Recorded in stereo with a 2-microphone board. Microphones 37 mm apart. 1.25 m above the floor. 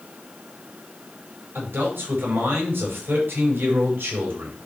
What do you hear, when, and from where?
1.6 s a man speaking: 85° right, 5.5 m